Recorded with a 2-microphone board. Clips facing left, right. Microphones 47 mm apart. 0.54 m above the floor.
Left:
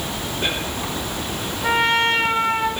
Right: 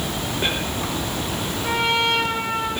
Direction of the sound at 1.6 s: 55° left (ahead or behind).